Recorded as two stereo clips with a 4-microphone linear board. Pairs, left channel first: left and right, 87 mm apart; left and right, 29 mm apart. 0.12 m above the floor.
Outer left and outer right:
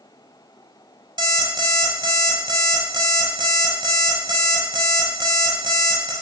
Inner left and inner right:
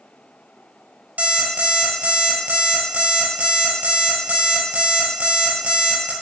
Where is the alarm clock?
60° right (ahead or behind), 0.8 m.